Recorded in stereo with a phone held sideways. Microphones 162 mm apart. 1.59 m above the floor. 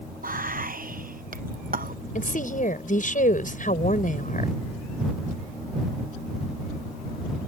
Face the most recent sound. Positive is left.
turn(degrees=55)  # may be behind; listen again after turning